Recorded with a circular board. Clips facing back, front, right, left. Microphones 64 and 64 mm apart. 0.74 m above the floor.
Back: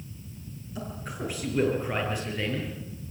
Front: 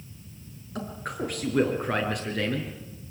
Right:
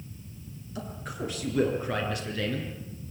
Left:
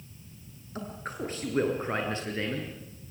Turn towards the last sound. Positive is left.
turn(degrees=30)